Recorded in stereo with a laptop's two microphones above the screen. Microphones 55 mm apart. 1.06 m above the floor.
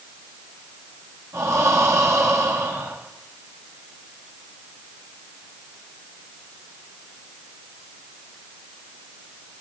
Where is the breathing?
70° right (ahead or behind), 1.8 m.